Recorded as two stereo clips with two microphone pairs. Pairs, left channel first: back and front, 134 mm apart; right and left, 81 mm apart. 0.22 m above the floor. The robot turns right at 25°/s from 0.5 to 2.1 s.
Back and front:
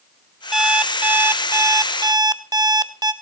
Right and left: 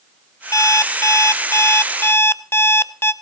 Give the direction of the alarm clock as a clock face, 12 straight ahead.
3 o'clock.